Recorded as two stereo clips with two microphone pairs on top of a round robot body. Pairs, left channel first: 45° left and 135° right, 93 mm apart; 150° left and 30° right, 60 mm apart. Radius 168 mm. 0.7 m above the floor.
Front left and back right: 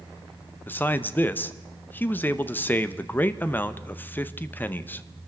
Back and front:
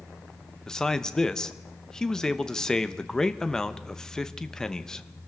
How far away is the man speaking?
About 0.9 m.